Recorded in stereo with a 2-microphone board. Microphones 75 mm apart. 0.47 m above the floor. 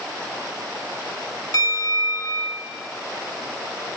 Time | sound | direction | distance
1.5 | a bell | 55° left (ahead or behind) | 0.8 m